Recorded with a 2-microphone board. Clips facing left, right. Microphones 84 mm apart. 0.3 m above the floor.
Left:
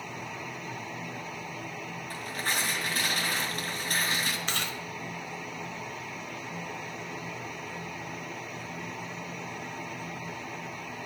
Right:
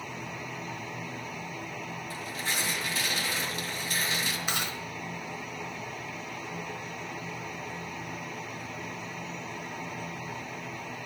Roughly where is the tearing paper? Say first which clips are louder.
Left 3 dB; left.